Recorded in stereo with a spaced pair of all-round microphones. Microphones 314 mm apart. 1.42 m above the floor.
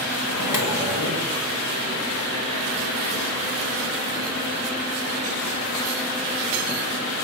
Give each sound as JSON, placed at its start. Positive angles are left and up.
{"t": 0.3, "sound": "a microwave", "side_deg": 75, "distance_m": 1.4}